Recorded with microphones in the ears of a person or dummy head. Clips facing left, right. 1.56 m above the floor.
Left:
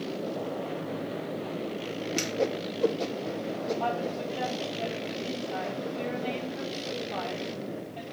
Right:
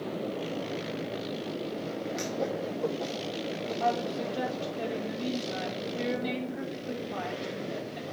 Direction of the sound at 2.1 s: 40° left (ahead or behind).